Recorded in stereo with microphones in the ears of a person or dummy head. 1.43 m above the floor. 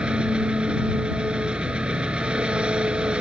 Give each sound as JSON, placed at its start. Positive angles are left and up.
{"t": 0.0, "sound": "an engine running", "side_deg": -10}